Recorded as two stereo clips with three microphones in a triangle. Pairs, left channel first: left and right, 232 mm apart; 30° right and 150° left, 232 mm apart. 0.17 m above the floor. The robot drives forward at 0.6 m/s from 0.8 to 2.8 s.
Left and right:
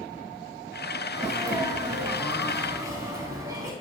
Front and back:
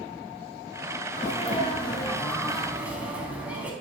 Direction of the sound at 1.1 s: 25° right.